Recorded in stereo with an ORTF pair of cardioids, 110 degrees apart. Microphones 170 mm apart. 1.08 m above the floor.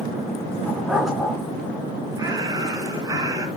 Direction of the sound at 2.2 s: 20° right.